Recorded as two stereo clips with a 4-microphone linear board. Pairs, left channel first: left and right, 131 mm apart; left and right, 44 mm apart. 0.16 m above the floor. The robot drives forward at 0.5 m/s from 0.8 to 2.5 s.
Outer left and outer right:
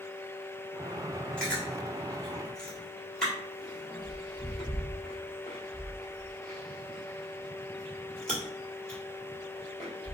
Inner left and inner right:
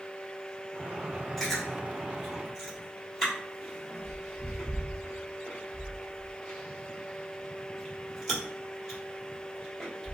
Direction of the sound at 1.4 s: 5° left (ahead or behind).